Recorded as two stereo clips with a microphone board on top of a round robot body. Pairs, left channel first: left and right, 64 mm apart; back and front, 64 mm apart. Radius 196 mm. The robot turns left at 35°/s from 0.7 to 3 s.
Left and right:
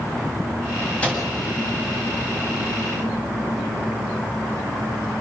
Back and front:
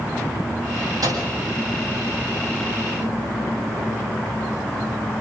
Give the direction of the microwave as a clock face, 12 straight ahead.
11 o'clock.